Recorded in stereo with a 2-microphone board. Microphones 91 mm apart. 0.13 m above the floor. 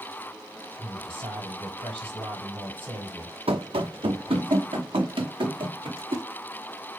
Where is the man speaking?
70° right (ahead or behind), 5 m.